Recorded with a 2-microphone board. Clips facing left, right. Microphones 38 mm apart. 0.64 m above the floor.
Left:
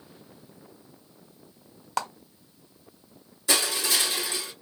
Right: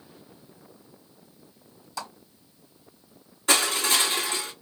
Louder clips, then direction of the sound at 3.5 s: Right 3 dB; 50° right (ahead or behind).